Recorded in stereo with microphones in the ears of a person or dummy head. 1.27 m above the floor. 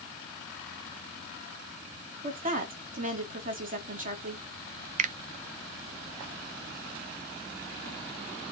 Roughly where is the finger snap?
Right.